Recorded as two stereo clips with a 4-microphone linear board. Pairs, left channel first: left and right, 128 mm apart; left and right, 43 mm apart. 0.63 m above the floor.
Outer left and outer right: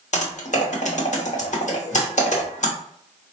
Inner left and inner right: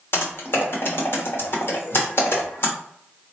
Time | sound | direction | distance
0.1 | typing on a keyboard | 65° left (ahead or behind) | 0.9 m